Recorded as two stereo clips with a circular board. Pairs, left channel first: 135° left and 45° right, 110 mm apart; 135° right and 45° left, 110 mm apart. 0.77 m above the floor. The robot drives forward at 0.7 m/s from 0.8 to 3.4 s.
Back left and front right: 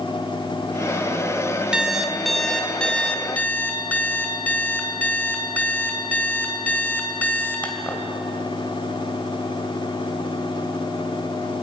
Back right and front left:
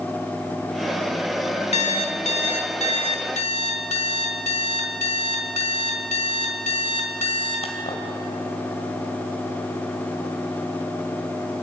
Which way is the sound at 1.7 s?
125° right.